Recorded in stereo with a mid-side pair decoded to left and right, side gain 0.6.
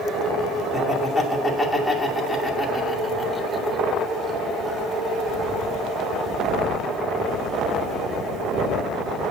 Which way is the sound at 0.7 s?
5° left.